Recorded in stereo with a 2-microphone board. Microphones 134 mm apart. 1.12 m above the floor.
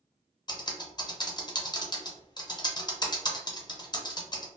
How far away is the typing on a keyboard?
About 0.5 m.